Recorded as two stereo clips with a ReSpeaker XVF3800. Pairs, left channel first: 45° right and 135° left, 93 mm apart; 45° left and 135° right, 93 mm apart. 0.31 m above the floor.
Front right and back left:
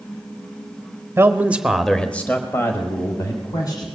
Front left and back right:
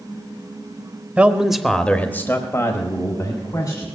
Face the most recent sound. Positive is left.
turn(degrees=0)